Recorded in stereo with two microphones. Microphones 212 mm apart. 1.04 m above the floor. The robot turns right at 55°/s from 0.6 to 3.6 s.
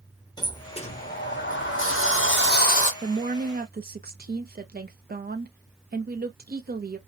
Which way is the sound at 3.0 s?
125° right.